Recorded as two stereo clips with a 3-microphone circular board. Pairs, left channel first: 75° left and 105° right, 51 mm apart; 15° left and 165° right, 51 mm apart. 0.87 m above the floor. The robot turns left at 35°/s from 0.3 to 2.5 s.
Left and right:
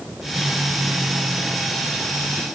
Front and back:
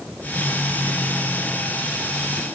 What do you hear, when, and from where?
Only background noise.